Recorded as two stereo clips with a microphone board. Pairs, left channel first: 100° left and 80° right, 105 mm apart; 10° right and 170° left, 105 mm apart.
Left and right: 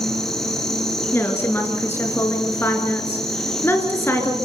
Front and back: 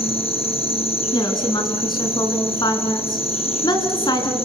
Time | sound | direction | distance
0.0 | an insect | 15° left | 3 m
1.1 | a woman speaking | 30° left | 4 m